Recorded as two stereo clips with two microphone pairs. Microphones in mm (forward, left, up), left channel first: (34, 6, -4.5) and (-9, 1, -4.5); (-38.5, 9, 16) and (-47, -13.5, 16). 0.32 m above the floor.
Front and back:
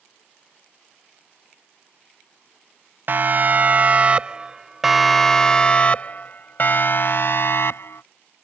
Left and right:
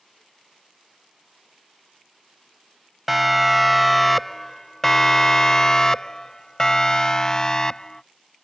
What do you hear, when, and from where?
3.1 s a siren: 165° left; by 8.0 s 5° left